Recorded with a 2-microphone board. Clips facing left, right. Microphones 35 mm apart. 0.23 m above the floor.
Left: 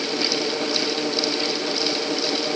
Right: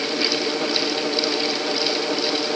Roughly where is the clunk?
I don't hear a clunk.